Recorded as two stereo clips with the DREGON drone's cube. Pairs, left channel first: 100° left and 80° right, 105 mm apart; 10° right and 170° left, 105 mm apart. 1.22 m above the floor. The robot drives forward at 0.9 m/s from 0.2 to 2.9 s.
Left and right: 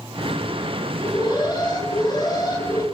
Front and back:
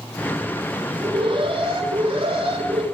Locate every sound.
1.0 s an alarm: 140° left, 6 m; by 2.8 s 150° left, 7.5 m